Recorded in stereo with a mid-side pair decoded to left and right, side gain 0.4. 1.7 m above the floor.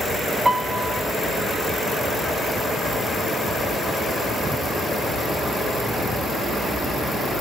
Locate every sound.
0.5 s a piano: 15° right, 1.2 m